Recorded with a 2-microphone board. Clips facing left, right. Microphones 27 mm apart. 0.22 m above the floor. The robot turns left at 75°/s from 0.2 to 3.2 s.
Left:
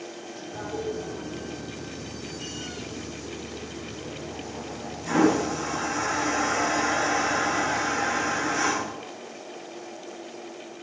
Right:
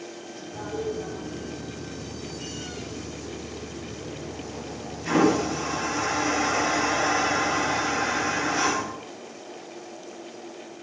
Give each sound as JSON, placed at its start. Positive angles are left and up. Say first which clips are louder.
{"t": 0.5, "sound": "a toilet flushing", "louder": "right 1 dB", "side_deg": 50, "distance_m": 4.0}